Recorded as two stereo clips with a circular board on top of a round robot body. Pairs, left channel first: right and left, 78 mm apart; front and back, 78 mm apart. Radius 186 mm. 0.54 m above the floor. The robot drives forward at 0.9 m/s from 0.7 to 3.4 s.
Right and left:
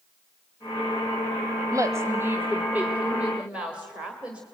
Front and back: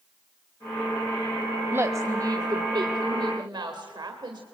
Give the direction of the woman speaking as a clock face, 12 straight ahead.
8 o'clock.